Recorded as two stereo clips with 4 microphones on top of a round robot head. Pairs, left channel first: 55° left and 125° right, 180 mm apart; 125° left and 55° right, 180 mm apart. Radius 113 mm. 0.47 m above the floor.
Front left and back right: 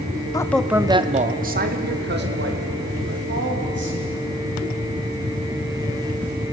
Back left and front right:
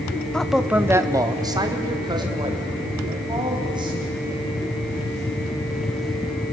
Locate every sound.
0.3 s a man speaking: 45° left, 0.7 m; by 4.3 s 120° right, 3.5 m